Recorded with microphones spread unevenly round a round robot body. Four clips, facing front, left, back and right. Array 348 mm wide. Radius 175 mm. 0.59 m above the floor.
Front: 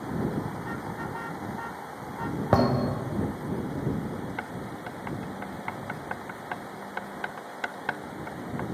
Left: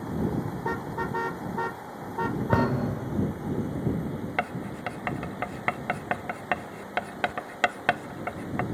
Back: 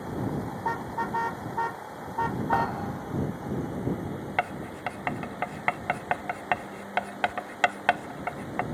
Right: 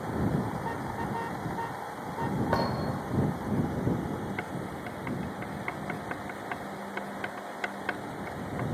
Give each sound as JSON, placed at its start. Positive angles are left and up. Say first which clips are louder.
{"t": 0.6, "sound": "a car horn", "louder": "left 3 dB, back 4 dB", "azimuth_deg": 100}
{"t": 2.5, "sound": "a thud", "louder": "left 4 dB, front 7 dB", "azimuth_deg": 35}
{"t": 4.4, "sound": "writing", "louder": "left 4 dB, back 5 dB", "azimuth_deg": 100}